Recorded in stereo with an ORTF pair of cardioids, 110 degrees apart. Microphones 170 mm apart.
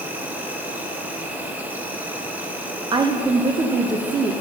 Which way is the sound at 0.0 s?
10° right.